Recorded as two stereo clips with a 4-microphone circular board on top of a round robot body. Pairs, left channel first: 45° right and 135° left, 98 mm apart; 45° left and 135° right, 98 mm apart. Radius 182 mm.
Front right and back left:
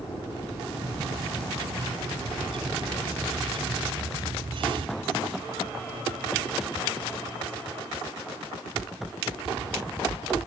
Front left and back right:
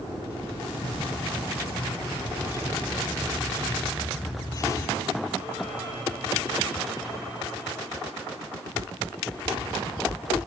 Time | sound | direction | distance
0.8 | a bird | 105° left | ?